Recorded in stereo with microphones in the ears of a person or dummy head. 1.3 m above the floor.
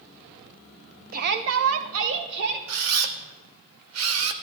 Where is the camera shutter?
80° right, 0.8 m.